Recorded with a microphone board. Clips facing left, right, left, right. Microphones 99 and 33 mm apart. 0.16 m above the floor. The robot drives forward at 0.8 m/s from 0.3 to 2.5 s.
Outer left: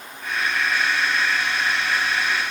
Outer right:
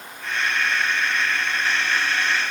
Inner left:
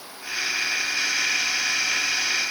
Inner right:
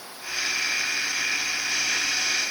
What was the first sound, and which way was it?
Only background noise.